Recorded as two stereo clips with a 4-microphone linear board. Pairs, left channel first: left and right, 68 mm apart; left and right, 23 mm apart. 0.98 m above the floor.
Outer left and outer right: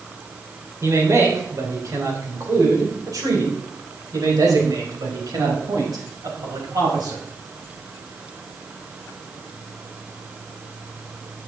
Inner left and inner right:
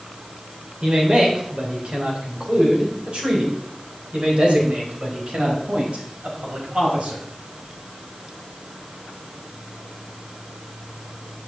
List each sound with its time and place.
0.8 s a man speaking: 50° right (ahead or behind), 4 m; by 7.2 s 80° right, 6 m